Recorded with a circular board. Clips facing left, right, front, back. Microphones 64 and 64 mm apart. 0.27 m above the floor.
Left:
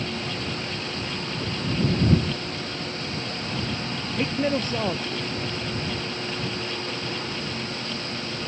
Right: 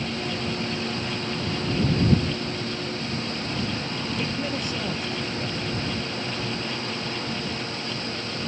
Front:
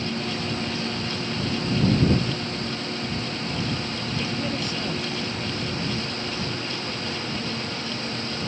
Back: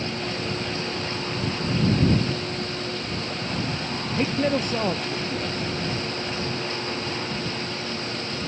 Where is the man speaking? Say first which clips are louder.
Left 7 dB, back 7 dB; 140° left.